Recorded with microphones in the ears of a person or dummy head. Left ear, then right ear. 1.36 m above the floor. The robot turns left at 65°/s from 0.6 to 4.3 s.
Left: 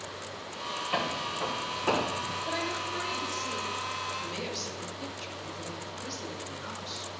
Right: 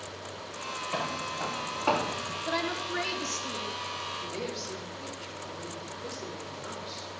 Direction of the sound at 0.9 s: Centre (ahead or behind).